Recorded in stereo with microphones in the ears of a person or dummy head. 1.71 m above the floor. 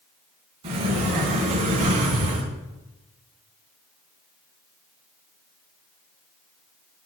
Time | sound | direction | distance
0.6 | a sliding door | 35° right (ahead or behind) | 3 m